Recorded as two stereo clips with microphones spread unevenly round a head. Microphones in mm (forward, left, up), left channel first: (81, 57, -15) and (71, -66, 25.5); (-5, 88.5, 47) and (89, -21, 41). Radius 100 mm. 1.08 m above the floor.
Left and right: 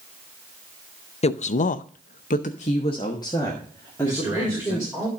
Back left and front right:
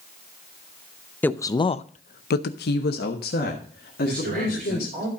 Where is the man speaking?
25° right, 4.5 m.